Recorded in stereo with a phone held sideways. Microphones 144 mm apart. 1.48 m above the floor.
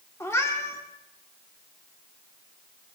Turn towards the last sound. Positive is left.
turn(degrees=20)  # may be behind; listen again after turning